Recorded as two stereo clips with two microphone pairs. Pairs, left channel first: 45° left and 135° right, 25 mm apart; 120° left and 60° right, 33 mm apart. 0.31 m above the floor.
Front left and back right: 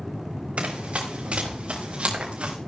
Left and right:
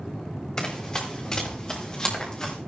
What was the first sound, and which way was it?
Running footsteps, 170° right.